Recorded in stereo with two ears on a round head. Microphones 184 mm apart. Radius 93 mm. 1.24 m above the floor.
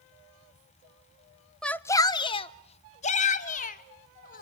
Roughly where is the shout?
Centre.